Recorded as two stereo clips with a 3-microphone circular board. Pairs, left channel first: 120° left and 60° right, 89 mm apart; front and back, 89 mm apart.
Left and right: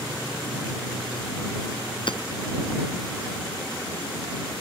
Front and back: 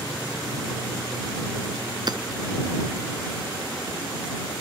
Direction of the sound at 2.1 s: 145° left.